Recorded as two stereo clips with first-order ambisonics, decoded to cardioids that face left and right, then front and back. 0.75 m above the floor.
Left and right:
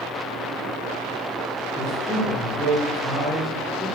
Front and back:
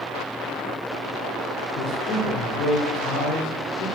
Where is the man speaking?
5° right, 2 m.